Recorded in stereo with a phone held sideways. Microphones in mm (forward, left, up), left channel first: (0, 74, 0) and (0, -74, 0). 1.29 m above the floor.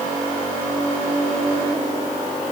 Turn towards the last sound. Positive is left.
No sound to turn to.